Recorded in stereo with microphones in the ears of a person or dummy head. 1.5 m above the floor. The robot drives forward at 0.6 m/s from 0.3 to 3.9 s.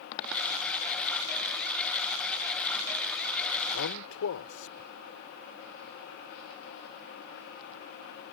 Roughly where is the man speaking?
Left.